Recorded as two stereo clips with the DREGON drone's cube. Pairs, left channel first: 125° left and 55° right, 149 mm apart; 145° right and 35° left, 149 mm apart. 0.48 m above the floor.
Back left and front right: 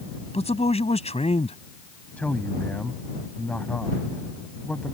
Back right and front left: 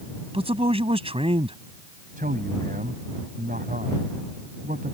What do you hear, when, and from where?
0.3 s a man speaking: 80° left
2.2 s a man speaking: 45° left